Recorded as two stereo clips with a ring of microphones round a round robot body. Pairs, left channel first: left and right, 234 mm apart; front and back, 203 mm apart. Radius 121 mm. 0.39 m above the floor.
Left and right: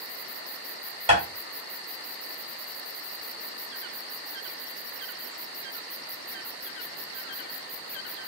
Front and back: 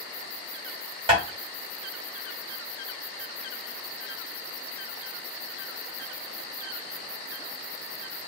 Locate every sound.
1.1 s tapping: 130° right, 1.8 m